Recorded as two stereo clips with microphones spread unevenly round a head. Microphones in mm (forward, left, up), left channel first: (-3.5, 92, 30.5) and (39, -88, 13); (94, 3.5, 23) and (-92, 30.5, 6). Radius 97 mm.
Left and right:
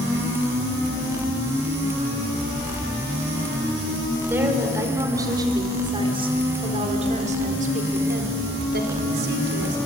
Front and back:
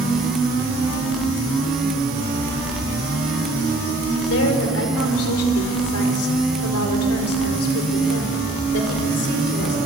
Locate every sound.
4.3 s a woman speaking: 5° left, 4.5 m; by 9.8 s 50° right, 4 m